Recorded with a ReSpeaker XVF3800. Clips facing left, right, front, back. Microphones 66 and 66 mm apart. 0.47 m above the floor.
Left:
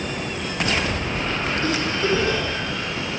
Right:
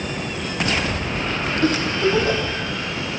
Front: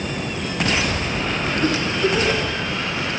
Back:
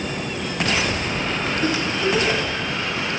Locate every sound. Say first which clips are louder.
1.6 s a giggle: right 6 dB, front 2 dB; 100° right, 2.5 m